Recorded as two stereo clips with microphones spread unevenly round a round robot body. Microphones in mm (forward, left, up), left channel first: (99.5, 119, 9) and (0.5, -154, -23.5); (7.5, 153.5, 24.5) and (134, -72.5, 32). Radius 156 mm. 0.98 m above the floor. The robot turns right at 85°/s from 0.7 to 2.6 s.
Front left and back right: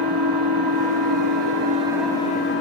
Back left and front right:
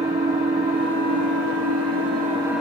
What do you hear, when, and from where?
0.0 s an engine running: 130° right, 6.5 m; by 2.6 s 30° left, 6.5 m